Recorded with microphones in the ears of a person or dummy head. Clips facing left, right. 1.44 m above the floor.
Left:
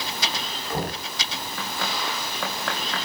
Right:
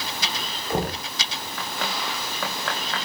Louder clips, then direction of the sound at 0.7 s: Right 3 dB; 20° right (ahead or behind).